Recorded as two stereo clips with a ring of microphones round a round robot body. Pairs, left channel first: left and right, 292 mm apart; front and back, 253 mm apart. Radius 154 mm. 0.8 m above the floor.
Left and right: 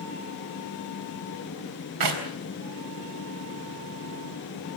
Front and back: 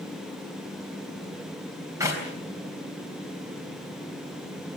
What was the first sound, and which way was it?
A clap, 100° right.